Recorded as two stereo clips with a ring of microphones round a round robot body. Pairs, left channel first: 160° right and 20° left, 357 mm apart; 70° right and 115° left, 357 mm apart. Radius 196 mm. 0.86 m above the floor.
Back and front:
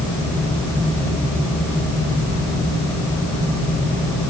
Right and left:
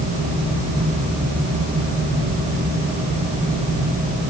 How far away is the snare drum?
I don't hear a snare drum.